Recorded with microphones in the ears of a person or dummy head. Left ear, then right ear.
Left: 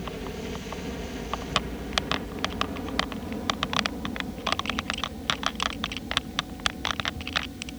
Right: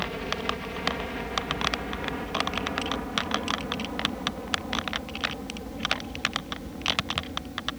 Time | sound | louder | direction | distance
0.0 | a helicopter | right 6 dB | 40° right (ahead or behind) | ?